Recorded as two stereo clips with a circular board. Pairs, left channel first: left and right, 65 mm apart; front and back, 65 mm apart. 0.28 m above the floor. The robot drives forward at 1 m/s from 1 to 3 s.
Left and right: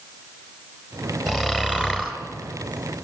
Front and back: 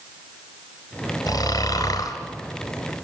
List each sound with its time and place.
1.3 s snoring: 10° right, 3.5 m